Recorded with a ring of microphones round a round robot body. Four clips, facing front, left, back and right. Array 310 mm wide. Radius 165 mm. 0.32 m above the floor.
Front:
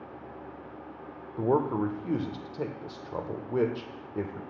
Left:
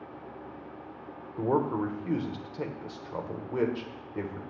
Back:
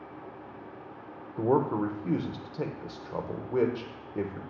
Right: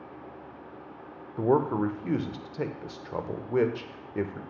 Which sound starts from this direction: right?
A man speaking, at 1.4 s.